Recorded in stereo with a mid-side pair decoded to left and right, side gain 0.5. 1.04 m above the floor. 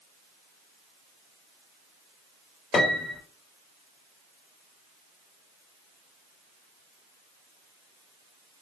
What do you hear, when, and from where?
2.7 s a piano: 40° left, 1.1 m